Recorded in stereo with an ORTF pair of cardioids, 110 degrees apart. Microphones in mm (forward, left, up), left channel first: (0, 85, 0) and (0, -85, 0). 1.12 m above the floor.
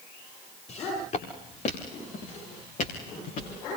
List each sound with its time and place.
0.7 s footsteps: 45° left, 8.5 m; by 3.5 s 55° left, 7.5 m